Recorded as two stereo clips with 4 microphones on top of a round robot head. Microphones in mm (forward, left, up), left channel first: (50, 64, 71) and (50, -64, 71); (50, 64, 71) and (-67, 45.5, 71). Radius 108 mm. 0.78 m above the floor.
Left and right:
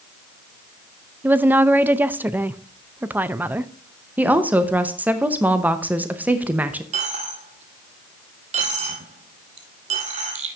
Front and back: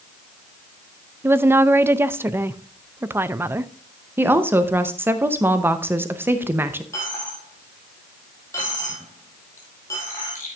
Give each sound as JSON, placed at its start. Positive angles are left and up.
{"t": 1.2, "sound": "a woman speaking", "azimuth_deg": -140, "distance_m": 0.5}
{"t": 4.2, "sound": "a woman speaking", "azimuth_deg": -140, "distance_m": 0.8}
{"t": 6.9, "sound": "a dropped coin", "azimuth_deg": -65, "distance_m": 1.4}